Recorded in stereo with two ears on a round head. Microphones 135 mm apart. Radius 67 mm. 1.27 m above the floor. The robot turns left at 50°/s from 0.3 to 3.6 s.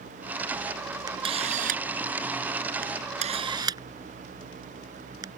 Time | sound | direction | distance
1.1 | a camera shutter | 25° right (ahead or behind) | ?